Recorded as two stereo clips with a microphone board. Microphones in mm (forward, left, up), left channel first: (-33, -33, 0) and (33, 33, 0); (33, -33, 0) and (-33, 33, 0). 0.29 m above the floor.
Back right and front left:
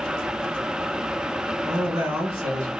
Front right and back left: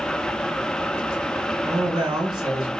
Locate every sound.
1.6 s a man speaking: 95° left, 2.5 m